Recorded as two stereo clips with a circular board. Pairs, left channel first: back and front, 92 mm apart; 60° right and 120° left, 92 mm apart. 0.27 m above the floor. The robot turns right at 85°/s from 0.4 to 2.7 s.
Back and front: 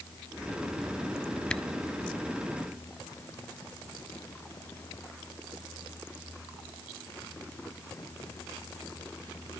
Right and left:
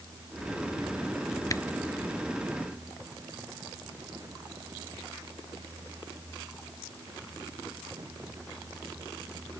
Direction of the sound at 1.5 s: 105° right.